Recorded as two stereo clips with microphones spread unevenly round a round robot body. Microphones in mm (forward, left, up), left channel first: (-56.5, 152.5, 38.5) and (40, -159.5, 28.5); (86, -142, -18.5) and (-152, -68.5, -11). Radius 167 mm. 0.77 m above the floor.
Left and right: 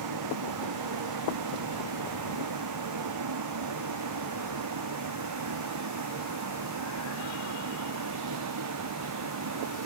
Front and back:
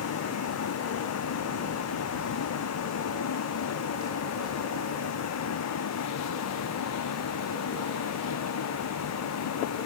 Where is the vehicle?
35° right; by 9.9 s 30° right.